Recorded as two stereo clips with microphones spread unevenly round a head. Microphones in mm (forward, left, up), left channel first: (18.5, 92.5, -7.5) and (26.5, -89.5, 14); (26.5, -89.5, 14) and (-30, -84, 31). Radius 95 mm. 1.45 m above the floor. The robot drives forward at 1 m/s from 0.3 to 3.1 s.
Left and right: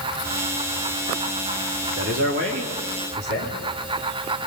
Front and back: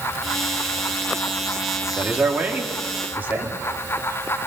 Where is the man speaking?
115° right, 4 m; by 3.5 s 130° right, 4.5 m.